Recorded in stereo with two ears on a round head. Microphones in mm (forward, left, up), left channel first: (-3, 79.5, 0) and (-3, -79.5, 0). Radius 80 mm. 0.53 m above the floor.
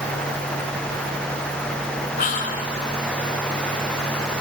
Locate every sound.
2.2 s whispering: 45° left (ahead or behind), 1.9 m